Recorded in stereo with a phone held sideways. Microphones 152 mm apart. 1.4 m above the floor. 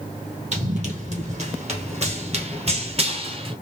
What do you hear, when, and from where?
0.5 s running footsteps: 50° right (ahead or behind), 3 m; by 3.5 s 35° right (ahead or behind), 1.7 m